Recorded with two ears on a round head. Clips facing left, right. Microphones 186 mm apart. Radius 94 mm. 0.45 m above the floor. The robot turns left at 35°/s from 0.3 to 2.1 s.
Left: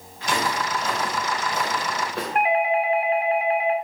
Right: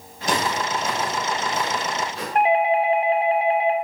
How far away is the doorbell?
About 1.8 m.